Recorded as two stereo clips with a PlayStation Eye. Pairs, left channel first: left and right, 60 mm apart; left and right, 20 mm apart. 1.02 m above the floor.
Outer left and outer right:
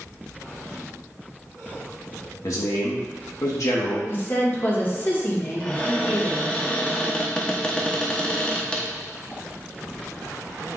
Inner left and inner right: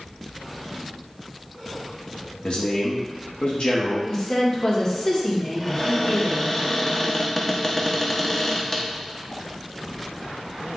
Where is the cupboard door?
15° left (ahead or behind), 0.7 m.